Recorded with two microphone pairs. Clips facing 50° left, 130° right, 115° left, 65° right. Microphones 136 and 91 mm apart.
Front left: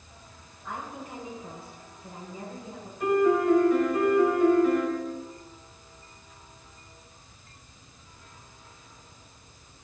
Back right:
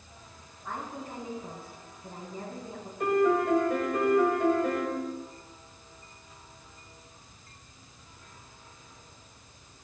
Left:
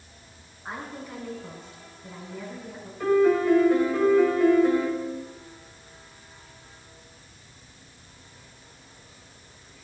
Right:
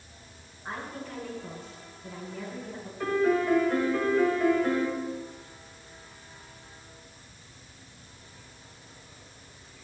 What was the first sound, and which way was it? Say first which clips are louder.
A woman speaking: even, left 1 dB; 175° right.